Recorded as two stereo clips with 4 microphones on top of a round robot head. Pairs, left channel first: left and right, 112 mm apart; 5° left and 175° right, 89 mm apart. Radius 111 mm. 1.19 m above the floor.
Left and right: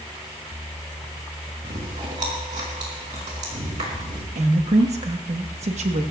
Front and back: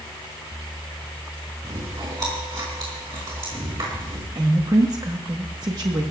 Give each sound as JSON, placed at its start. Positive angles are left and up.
{"t": 1.6, "sound": "chewing", "azimuth_deg": -125, "distance_m": 4.0}
{"t": 4.3, "sound": "a woman speaking", "azimuth_deg": -120, "distance_m": 1.3}